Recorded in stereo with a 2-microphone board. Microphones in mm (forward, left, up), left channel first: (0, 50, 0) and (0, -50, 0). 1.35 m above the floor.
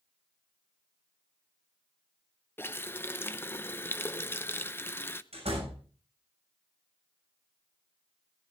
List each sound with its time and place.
2.6 s a running tap: 20° left (ahead or behind), 0.5 m
5.3 s a door slam: 80° right, 7 m